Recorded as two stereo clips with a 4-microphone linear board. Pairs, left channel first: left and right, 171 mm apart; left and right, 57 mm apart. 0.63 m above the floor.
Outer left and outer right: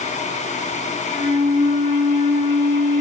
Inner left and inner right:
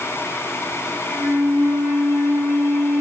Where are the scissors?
No scissors in this recording.